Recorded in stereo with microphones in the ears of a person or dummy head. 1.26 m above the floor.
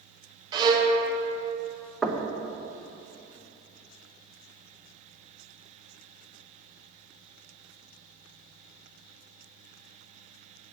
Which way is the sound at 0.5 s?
25° right (ahead or behind).